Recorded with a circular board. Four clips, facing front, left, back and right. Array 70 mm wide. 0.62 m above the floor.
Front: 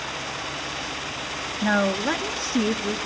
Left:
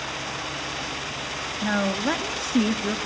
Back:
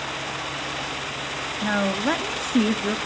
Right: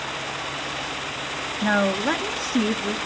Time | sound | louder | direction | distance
1.6 | a woman speaking | right 3 dB, front 1 dB | 60° right | 1.2 m